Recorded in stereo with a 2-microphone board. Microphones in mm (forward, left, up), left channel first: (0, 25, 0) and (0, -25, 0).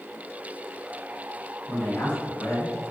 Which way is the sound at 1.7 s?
35° left (ahead or behind).